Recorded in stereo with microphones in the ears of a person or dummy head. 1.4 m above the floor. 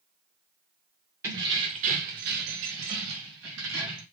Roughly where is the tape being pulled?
I don't hear tape being pulled.